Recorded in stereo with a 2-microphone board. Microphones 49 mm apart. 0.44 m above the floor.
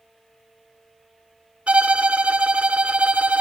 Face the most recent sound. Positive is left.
turn(degrees=-25)  # may be behind; listen again after turning